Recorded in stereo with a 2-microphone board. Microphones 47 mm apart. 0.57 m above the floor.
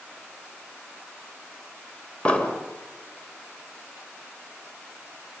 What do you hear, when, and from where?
2.2 s an explosion: 25° left (ahead or behind), 2 m